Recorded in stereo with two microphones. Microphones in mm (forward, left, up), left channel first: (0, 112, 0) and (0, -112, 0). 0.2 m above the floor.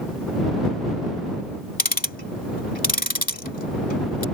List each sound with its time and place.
1.8 s ticking: 40° left (ahead or behind)